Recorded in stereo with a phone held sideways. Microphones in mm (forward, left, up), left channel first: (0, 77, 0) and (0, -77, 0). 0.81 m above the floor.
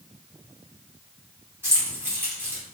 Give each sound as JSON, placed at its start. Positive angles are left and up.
{"t": 1.6, "sound": "keys jangling", "side_deg": -15, "distance_m": 1.0}